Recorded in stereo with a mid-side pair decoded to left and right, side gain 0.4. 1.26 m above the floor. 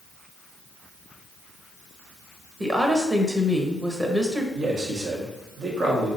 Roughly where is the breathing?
I don't hear breathing.